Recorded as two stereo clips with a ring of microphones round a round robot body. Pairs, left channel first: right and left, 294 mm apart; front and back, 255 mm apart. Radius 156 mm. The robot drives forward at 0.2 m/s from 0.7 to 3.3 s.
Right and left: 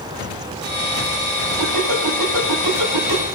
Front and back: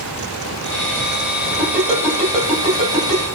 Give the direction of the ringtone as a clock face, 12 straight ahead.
9 o'clock.